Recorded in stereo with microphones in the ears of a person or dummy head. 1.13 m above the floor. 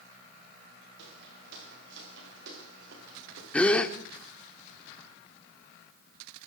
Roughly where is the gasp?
Centre.